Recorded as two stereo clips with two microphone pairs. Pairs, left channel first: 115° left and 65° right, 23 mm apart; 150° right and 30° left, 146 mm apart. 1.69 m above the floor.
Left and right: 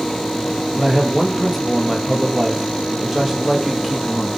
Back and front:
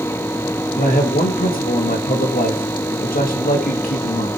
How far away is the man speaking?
About 2.5 m.